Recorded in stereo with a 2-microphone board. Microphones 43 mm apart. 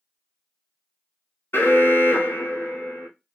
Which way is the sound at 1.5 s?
60° left (ahead or behind).